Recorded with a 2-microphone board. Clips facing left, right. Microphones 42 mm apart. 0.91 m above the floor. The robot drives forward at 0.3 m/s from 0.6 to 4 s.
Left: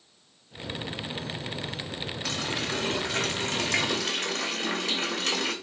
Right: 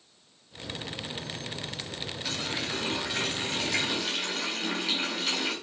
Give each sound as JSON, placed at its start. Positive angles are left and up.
{"t": 2.2, "sound": "a running tap", "side_deg": 65, "distance_m": 3.0}